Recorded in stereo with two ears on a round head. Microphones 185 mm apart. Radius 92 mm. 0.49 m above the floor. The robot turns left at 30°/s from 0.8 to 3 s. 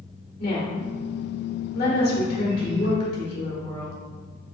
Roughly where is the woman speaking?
Left.